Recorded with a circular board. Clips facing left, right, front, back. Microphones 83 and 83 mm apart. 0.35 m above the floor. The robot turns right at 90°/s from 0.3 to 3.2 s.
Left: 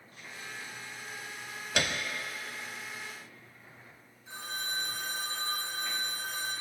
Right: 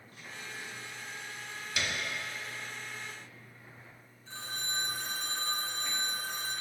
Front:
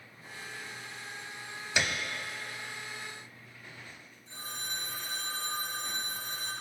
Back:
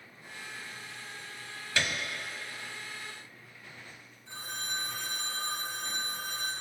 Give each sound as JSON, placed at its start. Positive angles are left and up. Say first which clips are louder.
{"t": 1.8, "sound": "a piano", "louder": "left 4 dB, even", "azimuth_deg": 75, "distance_m": 0.5}
{"t": 4.3, "sound": "a phone ringing", "louder": "left 2 dB, back 3 dB", "azimuth_deg": 170, "distance_m": 1.9}